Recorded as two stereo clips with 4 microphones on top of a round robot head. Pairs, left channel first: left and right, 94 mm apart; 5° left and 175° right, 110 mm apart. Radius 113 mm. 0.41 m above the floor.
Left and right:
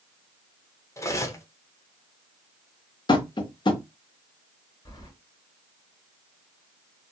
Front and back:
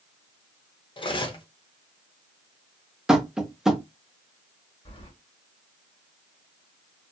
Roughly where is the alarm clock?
I don't hear an alarm clock.